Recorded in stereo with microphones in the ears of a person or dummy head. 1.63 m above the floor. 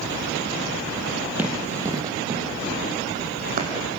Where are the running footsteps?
10° right (ahead or behind), 3 m; by 3.9 s 50° right (ahead or behind), 5 m.